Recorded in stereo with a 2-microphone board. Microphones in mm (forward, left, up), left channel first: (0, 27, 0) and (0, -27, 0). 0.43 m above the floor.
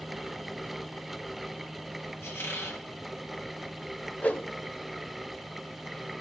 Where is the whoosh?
30° left (ahead or behind), 0.6 m.